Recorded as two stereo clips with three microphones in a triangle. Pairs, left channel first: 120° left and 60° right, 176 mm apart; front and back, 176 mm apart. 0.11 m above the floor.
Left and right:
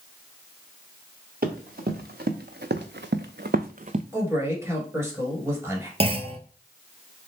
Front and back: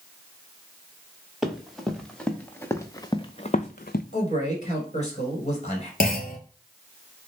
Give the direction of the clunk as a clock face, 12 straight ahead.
12 o'clock.